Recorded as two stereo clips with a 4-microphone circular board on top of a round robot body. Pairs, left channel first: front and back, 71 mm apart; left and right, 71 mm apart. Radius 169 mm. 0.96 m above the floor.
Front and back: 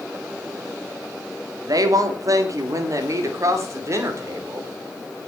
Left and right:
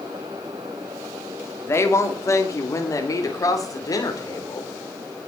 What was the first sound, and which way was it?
A woman speaking, 145° left.